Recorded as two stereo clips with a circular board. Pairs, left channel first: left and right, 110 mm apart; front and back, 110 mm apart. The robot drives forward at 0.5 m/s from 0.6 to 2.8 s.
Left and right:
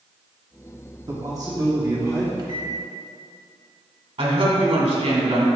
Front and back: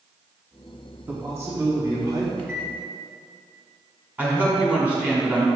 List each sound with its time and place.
1.1 s a man speaking: 120° right, 1.5 m; by 2.3 s 140° right, 1.8 m
2.4 s a microwave: 70° right, 1.1 m; by 2.7 s 85° right, 1.1 m
4.2 s a woman speaking: 105° right, 2 m